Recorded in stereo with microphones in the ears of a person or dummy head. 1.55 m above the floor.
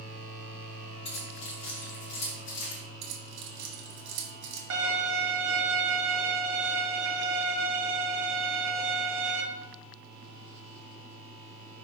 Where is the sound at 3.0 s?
65° right (ahead or behind), 1.9 m.